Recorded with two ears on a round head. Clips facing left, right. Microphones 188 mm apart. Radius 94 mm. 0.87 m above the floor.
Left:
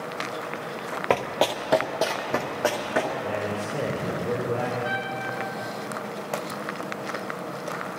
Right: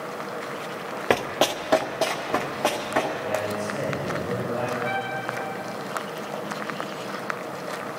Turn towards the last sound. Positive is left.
turn(degrees=15)  # may be behind; listen again after turning